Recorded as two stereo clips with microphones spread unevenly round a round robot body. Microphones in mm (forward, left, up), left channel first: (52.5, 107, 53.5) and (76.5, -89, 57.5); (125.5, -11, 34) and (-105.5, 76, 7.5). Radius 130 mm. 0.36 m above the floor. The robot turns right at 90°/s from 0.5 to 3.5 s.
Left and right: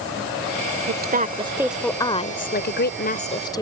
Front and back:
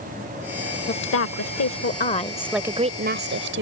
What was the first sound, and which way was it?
A woman speaking, 75° right.